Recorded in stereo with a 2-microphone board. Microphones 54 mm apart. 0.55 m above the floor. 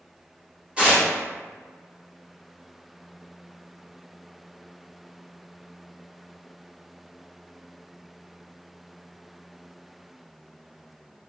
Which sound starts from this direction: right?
Tearing paper, at 0.8 s.